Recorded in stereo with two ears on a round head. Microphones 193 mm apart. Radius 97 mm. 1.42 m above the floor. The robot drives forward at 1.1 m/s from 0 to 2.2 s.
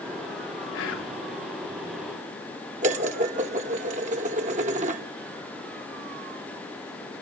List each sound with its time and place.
0.7 s whispering: 70° left (ahead or behind), 4.5 m; by 1.1 s 65° left (ahead or behind), 4.5 m
2.8 s dishes clattering: 35° right (ahead or behind), 1.1 m